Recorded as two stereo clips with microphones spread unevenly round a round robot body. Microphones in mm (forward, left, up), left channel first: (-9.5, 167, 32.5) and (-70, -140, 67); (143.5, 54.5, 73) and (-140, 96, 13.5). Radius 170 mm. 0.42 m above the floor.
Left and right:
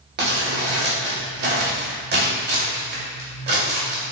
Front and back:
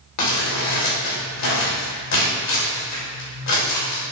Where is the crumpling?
45° right, 2 m.